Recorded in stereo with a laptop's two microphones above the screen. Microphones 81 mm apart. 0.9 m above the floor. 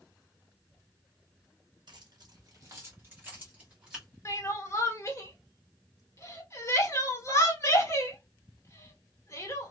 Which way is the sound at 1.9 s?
70° right (ahead or behind).